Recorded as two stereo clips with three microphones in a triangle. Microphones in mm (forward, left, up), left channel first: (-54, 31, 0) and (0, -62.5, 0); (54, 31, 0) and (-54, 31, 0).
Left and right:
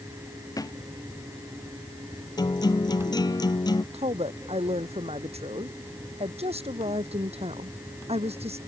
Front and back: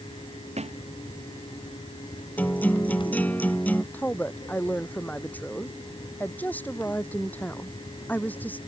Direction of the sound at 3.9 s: 75° right.